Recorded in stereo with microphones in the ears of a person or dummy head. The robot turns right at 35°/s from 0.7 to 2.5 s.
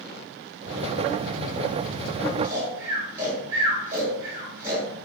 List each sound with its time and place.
2.4 s snoring: 15° right (ahead or behind), 1.1 m; by 4.9 s 10° right (ahead or behind), 1.1 m